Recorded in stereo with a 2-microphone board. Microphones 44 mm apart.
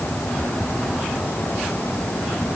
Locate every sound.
Only background noise.